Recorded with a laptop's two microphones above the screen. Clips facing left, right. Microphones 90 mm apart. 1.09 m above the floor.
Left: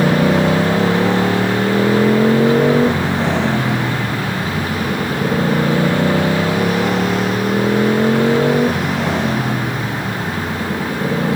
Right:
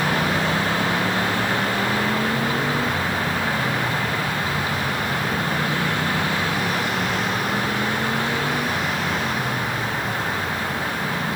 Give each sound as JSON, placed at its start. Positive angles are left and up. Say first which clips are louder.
{"t": 0.0, "sound": "a motorcycle", "louder": "left 8 dB", "side_deg": 85}